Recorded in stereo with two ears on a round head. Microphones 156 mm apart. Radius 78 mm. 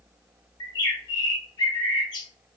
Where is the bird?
25° left (ahead or behind), 0.7 m.